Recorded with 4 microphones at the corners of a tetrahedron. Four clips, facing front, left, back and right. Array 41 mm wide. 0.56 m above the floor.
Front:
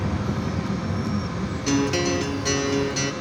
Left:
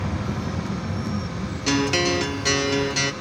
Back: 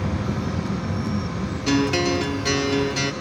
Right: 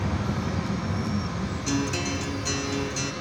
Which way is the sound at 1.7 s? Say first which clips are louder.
Left 8 dB, back 2 dB; 105° left.